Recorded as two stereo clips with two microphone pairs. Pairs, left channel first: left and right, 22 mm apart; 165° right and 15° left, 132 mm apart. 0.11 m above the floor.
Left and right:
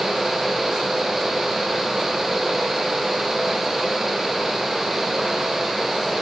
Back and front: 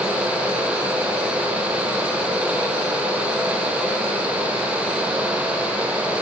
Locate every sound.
Only background noise.